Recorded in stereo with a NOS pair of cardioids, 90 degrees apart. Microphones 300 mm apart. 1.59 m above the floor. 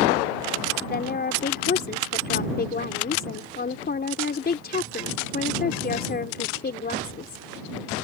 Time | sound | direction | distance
0.8 | a woman speaking | 30° left | ?